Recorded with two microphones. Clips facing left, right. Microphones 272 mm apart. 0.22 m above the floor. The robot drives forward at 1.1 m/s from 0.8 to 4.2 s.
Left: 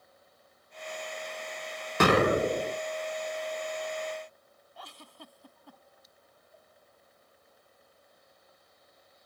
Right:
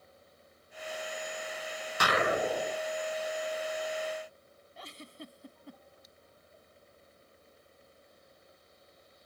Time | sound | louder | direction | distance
2.0 | an explosion | left 7 dB | 65° left (ahead or behind) | ?
4.8 | a giggle | right 4 dB | 25° right (ahead or behind) | ?